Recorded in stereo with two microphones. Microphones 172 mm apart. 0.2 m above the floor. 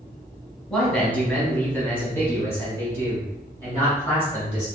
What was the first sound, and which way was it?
A man speaking, 5° left (ahead or behind).